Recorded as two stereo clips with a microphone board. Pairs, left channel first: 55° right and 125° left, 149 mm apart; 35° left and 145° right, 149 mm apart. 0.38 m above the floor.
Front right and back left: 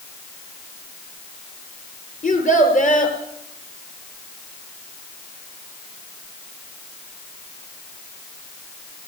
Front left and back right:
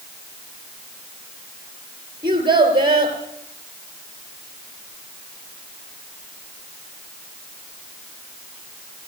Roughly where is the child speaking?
Right.